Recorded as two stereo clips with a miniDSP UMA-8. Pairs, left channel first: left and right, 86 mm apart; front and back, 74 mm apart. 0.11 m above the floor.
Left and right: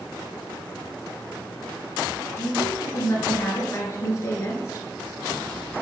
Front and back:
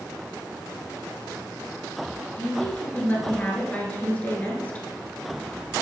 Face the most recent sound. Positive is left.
turn(degrees=60)